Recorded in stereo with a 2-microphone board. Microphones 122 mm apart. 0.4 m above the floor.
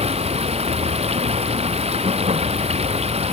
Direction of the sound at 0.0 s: 55° right (ahead or behind).